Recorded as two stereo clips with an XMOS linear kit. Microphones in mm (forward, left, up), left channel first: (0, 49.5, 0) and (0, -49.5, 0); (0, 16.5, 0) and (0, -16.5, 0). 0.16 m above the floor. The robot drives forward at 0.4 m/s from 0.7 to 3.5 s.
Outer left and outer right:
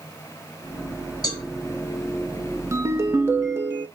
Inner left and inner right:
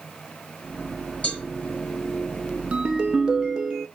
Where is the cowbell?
40° left (ahead or behind), 1.8 m.